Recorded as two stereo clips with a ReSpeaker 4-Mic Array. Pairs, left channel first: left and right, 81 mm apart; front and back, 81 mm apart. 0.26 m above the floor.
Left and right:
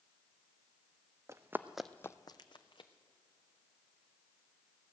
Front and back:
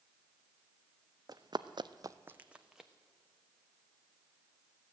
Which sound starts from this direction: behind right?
Running footsteps, at 1.3 s.